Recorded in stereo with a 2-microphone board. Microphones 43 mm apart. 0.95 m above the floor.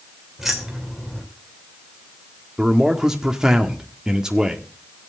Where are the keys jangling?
5° right (ahead or behind), 3 m.